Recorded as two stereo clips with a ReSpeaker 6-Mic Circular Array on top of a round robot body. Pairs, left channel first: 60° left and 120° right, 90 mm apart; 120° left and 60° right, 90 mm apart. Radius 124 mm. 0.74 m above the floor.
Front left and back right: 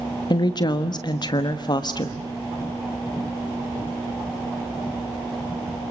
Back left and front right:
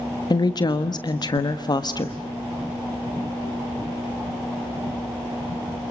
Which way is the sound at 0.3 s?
90° left.